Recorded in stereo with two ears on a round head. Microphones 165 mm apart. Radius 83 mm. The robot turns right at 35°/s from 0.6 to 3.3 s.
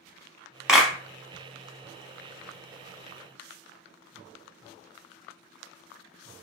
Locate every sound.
0.7 s a clap: 5° right (ahead or behind), 0.9 m; by 0.9 s 5° left (ahead or behind), 0.9 m